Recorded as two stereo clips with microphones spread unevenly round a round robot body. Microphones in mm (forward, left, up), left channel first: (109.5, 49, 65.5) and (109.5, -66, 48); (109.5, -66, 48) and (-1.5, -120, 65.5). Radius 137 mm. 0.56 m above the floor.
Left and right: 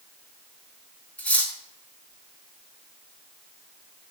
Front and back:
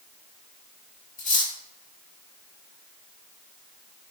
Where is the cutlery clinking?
10° left, 3.5 m.